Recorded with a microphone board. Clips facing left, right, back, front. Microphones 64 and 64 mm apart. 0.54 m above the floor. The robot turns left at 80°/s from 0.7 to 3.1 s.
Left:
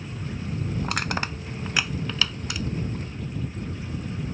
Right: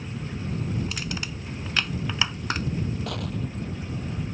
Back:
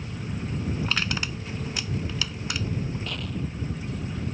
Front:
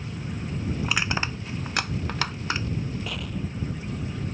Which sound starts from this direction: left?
Crushing, at 0.8 s.